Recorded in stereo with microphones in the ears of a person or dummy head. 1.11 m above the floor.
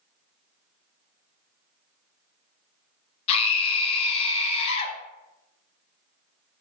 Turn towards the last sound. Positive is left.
turn(degrees=40)  # may be behind; listen again after turning